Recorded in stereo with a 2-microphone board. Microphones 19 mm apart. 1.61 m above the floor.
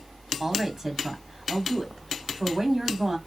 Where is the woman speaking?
20° right (ahead or behind), 1.0 m.